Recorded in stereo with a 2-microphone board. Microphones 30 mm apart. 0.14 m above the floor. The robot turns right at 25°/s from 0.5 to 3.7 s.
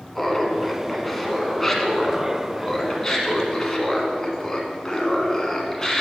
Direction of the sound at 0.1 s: 5° left (ahead or behind).